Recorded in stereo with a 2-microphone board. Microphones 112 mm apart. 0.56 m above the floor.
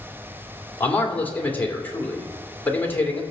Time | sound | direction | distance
0.8 | a man speaking | 20° left (ahead or behind) | 2 m